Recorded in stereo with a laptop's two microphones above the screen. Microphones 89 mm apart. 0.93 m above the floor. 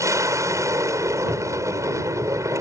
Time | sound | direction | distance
0.0 | an aircraft | 35° right (ahead or behind) | ?
1.3 | a cupboard door | 15° right (ahead or behind) | ?